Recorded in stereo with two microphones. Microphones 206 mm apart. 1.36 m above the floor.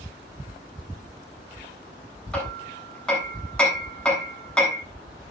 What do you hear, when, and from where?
2.3 s hammering: 5° left (ahead or behind), 8 m